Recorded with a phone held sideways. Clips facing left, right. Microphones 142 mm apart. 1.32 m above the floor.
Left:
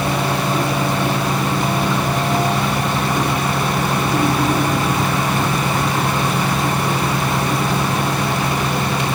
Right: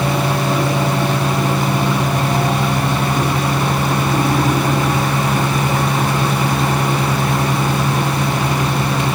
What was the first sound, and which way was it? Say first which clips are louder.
A fan: right 2 dB; 30° right (ahead or behind).